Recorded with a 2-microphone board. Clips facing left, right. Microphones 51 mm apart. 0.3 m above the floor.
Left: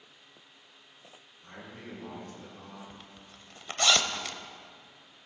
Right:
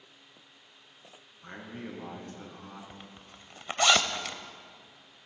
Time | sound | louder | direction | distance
1.4 | a man speaking | right 4 dB | 50° right (ahead or behind) | 3.5 m
2.9 | a zipper | right 1 dB | 20° right (ahead or behind) | 0.6 m